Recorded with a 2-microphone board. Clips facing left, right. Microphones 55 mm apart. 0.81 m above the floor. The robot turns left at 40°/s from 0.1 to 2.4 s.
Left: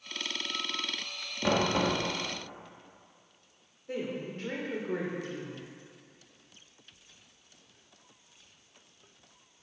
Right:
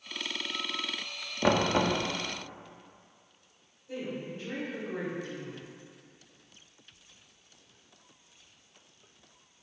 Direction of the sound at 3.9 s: 70° left (ahead or behind).